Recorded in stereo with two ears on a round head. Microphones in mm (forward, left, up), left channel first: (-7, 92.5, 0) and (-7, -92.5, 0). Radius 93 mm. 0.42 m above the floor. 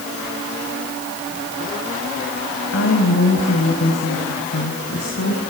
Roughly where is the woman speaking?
Left.